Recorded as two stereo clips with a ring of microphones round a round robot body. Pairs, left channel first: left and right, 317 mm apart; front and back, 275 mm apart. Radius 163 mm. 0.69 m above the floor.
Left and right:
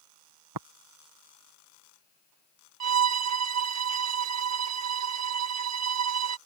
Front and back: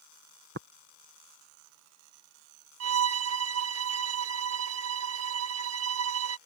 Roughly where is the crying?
No crying in this recording.